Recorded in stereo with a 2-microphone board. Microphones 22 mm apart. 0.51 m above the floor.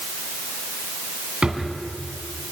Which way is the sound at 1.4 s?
45° right (ahead or behind).